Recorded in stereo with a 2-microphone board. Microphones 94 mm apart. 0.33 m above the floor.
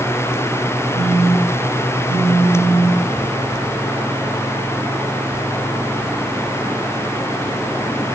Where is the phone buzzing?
30° right (ahead or behind), 4.5 m.